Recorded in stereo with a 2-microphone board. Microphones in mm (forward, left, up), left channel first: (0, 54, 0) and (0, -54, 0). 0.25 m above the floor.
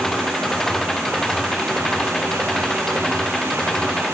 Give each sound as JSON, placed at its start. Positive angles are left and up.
{"t": 0.0, "sound": "an engine running", "side_deg": 5}